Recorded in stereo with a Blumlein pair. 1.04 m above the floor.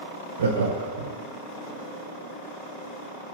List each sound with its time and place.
0.4 s laughter: 65° right, 0.6 m